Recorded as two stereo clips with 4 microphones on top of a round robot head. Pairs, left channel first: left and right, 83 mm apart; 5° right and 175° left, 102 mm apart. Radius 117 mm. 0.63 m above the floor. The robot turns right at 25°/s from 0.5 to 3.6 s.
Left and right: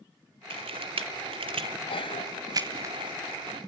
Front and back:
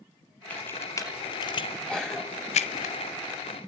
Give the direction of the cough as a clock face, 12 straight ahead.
9 o'clock.